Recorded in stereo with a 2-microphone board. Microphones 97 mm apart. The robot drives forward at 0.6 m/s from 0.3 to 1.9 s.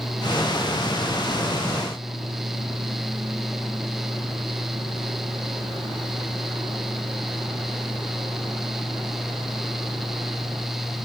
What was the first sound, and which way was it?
Only background noise.